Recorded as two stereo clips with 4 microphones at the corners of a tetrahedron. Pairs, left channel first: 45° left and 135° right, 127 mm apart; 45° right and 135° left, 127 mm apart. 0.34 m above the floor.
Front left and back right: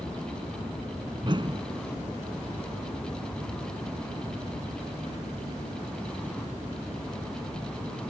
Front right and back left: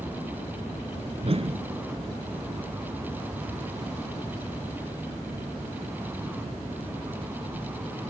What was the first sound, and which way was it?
A whoosh, 175° left.